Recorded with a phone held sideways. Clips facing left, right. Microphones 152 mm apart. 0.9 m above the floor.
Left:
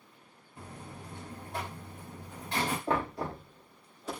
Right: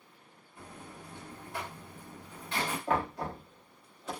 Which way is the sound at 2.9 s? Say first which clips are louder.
Even; 35° left (ahead or behind).